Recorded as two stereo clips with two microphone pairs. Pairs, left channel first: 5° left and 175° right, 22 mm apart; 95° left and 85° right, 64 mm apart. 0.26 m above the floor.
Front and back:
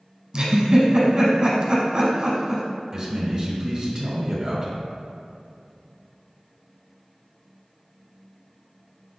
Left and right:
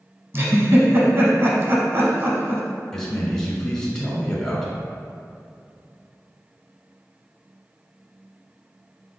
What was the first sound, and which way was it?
A giggle, 125° right.